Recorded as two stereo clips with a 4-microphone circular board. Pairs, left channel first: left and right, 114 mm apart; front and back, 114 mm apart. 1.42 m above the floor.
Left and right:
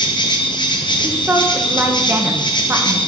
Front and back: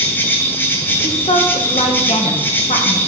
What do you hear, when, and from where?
0.0 s an insect: 65° left, 0.9 m
1.0 s a woman speaking: 20° right, 1.1 m